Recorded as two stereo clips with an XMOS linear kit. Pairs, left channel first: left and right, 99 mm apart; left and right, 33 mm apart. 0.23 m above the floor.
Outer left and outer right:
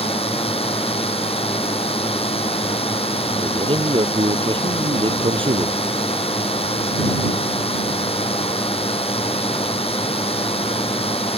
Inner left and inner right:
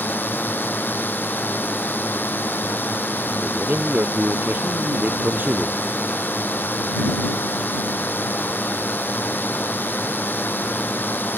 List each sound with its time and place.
0.0 s a drone: 80° left
3.4 s a man speaking: 60° right (ahead or behind)